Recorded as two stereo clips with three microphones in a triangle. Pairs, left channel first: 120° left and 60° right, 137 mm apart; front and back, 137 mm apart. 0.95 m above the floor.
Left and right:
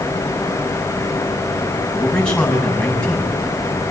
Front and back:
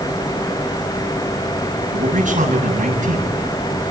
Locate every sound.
1.9 s a man speaking: 155° right, 8.5 m